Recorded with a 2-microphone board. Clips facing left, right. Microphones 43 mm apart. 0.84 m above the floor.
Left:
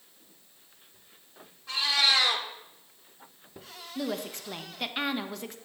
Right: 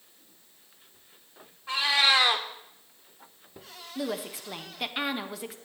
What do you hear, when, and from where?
1.7 s a cat meowing: 25° right (ahead or behind), 0.7 m
4.0 s a woman speaking: 5° right (ahead or behind), 0.5 m